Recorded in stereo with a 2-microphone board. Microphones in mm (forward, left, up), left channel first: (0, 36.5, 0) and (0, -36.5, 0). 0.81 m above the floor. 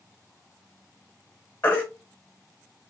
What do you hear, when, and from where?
1.6 s a baby crying: 25° left (ahead or behind), 1.8 m